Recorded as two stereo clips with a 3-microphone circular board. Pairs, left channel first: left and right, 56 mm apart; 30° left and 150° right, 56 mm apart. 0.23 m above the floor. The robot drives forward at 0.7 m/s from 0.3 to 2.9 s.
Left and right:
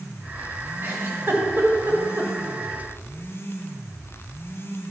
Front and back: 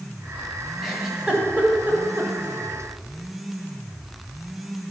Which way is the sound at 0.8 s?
65° right.